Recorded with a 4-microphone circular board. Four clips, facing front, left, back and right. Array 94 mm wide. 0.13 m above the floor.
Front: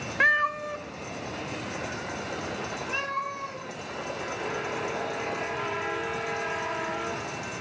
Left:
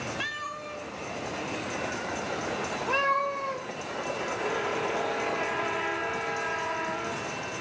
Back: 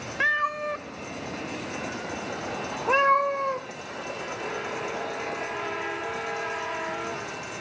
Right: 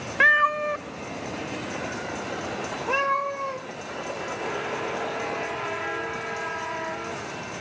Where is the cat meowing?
75° right, 0.6 m; by 3.7 s 175° right, 2.0 m.